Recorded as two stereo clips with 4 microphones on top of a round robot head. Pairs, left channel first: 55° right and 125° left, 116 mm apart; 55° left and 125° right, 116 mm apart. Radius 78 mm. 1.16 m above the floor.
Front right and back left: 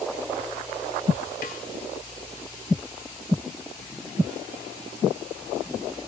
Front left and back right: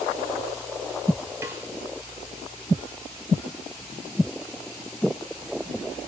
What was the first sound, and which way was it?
A snare drum, 65° right.